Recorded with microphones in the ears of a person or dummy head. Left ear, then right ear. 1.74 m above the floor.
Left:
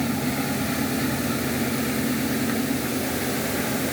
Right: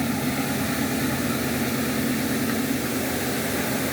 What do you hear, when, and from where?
0.0 s a machine running: centre (ahead or behind)